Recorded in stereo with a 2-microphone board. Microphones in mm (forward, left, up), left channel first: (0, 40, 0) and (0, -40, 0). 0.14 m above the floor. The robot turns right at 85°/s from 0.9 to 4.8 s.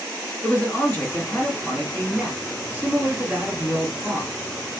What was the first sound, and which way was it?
A man speaking, 20° left (ahead or behind).